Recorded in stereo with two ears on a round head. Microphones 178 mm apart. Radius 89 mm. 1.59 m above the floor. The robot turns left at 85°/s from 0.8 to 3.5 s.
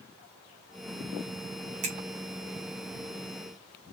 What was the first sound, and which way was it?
A finger snap, 35° right (ahead or behind).